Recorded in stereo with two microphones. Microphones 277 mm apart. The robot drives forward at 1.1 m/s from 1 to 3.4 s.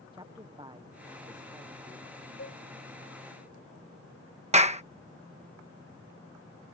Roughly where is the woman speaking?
Centre.